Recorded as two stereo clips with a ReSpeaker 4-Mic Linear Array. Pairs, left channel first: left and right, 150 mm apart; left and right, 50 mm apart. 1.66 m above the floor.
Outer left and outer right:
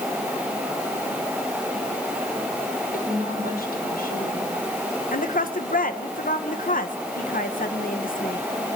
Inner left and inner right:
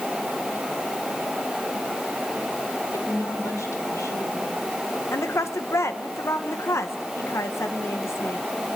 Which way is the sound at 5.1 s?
65° left (ahead or behind).